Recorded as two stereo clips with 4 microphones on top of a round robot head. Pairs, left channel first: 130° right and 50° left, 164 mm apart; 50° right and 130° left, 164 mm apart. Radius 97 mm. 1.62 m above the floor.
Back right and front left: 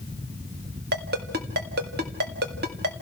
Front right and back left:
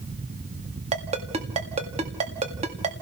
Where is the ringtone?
80° left, 1.9 m.